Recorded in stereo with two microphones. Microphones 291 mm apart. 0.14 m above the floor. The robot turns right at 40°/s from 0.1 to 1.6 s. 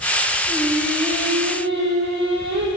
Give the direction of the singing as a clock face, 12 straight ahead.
6 o'clock.